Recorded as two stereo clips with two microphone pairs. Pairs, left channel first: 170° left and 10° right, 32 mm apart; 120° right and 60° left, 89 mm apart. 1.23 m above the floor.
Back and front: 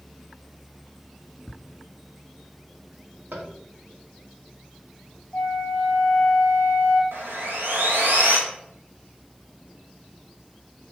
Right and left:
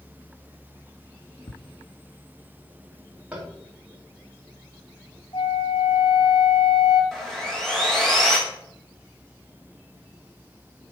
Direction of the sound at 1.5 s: 115° right.